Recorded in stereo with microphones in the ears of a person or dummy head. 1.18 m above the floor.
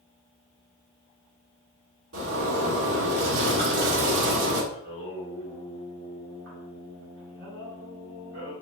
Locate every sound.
2.1 s a zipper: 65° right (ahead or behind), 2.5 m
4.7 s singing: 65° right (ahead or behind), 2 m